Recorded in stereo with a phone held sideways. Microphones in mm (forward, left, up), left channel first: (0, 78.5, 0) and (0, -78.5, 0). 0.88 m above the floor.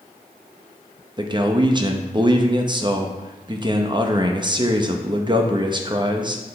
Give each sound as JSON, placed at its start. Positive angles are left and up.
{"t": 1.2, "sound": "a man speaking", "side_deg": -30, "distance_m": 0.7}